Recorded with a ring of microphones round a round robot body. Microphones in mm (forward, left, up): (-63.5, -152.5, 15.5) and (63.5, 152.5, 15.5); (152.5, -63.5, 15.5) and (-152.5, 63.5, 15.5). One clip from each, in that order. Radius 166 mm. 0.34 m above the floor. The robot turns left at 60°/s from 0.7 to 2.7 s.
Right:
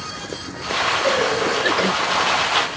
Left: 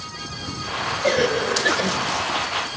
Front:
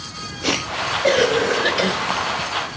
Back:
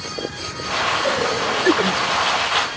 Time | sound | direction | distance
1.0 | a cough | 5° left | 1.1 m